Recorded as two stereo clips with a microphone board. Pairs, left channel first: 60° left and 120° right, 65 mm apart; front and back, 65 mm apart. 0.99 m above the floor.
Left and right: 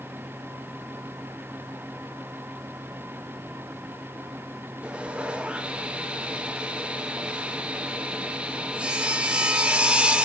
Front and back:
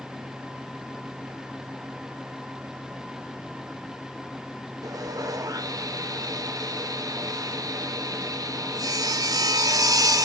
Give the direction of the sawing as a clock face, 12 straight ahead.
6 o'clock.